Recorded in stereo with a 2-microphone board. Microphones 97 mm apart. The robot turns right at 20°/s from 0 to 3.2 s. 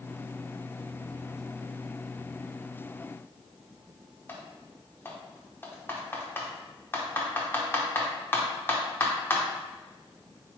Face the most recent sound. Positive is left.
turn(degrees=20)  # may be behind; listen again after turning